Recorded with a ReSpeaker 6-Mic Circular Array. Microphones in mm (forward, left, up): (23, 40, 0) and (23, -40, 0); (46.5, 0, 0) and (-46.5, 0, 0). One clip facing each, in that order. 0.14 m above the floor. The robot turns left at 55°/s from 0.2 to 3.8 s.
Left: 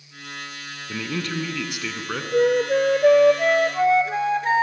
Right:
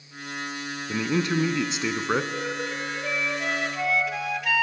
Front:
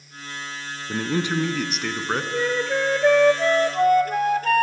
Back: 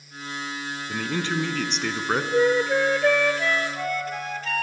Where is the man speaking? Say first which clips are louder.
Right 4 dB, front 4 dB; 35° right, 1.2 m; by 2.2 s 105° right, 1.2 m.